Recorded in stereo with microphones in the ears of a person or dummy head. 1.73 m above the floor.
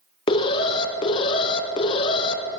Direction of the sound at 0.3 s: 20° left (ahead or behind).